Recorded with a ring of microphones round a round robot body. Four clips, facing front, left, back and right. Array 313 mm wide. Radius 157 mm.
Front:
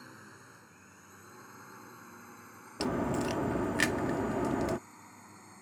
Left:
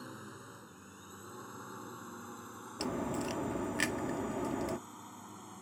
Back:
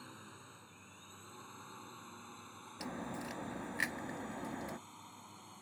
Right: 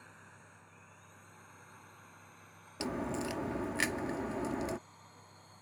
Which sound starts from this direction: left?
A drone, at 0.0 s.